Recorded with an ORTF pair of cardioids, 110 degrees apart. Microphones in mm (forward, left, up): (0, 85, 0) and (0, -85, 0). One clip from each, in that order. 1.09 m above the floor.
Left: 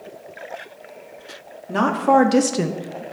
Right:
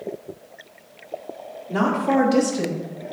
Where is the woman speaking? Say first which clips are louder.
Left 5 dB; 30° left, 1.7 m; by 3.0 s 75° left, 0.6 m.